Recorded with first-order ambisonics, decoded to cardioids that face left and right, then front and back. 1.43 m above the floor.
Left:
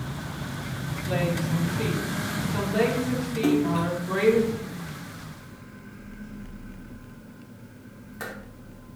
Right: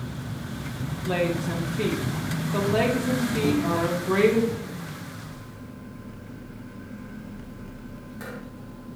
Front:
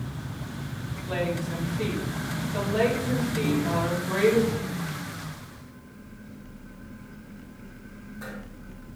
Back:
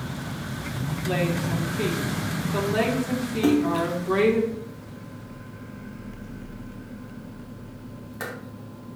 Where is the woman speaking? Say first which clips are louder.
Right 2 dB, back 3 dB; 120° right, 2.5 m.